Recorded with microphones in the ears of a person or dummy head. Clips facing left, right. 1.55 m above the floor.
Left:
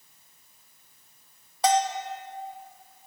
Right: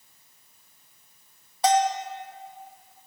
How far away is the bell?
About 0.5 m.